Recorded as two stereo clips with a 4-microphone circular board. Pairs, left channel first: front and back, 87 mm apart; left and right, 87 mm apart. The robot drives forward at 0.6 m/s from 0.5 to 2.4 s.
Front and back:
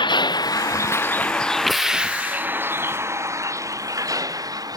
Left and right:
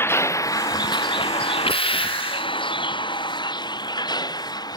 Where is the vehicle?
25° left; by 4.8 s 135° left.